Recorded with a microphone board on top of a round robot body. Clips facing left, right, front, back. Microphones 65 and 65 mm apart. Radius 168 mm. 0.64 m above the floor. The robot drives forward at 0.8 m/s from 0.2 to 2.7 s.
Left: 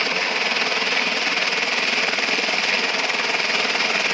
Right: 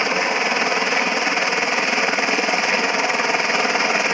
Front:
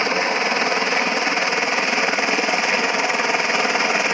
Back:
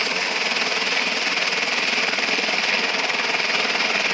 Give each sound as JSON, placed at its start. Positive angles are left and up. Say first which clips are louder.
{"t": 0.0, "sound": "a helicopter", "louder": "right 3 dB, front 5 dB", "azimuth_deg": -40}